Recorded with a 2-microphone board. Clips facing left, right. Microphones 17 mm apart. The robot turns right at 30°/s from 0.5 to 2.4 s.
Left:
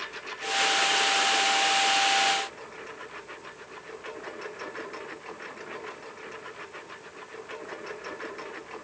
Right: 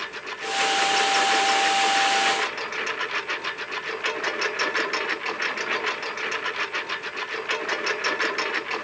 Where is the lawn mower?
160° right; by 8.8 s 100° right.